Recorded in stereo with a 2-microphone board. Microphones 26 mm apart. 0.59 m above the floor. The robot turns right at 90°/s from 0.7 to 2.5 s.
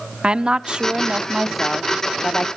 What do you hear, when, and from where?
0.2 s a woman speaking: 85° right, 0.9 m; by 2.6 s 80° left, 0.9 m